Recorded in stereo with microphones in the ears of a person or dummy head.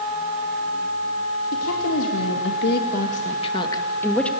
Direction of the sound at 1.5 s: 85° left.